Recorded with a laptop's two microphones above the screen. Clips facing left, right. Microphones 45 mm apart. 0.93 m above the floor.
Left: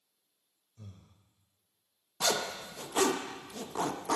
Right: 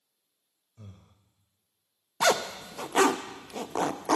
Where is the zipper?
70° right (ahead or behind), 0.5 m.